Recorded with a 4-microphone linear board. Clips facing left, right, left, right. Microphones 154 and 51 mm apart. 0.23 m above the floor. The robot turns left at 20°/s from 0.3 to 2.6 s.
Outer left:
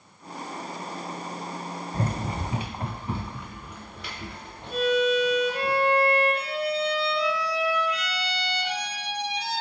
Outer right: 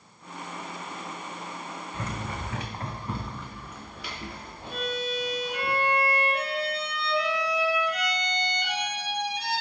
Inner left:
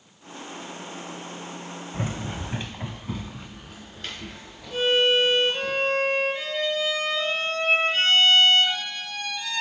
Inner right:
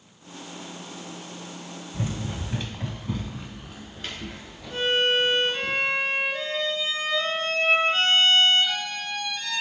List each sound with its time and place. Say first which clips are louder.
1.9 s running footsteps: outer left 6 dB, even; 40° left (ahead or behind), 0.6 m; by 5.7 s 10° right (ahead or behind), 4 m
4.7 s a violin: outer left 9 dB, inner left 2 dB; 65° right (ahead or behind), 2.5 m